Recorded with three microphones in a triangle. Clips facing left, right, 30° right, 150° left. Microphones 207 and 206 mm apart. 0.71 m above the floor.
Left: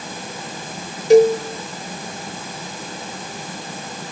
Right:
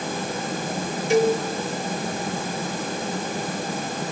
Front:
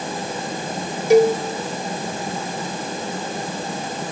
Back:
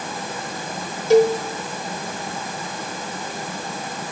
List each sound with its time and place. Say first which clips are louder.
1.1 s a cowbell: left 8 dB, front 1 dB; 45° left, 1.4 m